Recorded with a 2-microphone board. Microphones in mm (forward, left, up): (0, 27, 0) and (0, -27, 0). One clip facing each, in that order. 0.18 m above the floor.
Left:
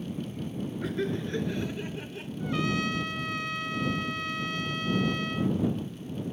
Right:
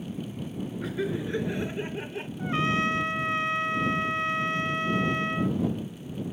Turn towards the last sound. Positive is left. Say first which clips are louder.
# right 3 dB
turn(degrees=-30)  # may be behind; listen again after turning